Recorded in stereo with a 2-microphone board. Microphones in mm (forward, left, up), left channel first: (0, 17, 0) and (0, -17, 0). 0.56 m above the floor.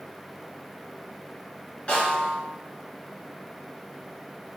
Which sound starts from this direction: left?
A snare drum, at 1.9 s.